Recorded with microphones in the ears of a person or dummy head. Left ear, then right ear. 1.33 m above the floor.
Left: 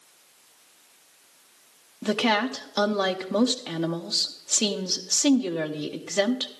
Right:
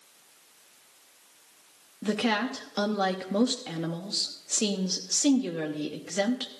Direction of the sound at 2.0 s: 20° left (ahead or behind).